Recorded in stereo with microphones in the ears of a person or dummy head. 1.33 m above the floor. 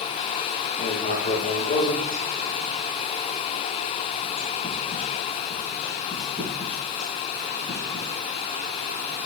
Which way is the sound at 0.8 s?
25° left (ahead or behind).